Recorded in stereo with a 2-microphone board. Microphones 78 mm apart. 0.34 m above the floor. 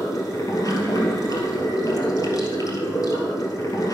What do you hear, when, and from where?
0.0 s running water: 50° left (ahead or behind), 1.5 m
1.8 s a drawer: 50° left (ahead or behind), 2.5 m